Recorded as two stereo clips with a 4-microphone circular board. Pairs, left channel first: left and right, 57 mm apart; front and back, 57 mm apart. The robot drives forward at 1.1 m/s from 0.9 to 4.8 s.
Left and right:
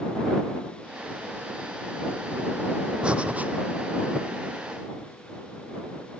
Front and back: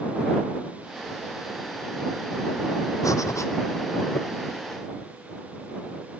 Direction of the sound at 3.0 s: 15° right.